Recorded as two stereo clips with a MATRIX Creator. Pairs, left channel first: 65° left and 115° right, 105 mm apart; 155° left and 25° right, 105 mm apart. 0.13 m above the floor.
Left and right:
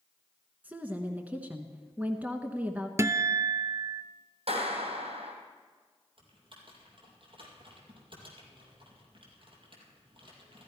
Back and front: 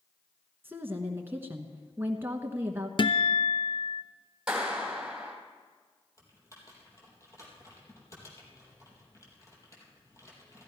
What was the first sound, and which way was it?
A woman speaking, 55° right.